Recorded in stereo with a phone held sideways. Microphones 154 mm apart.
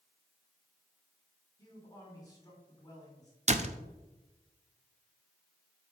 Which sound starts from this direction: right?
A door slam, at 3.5 s.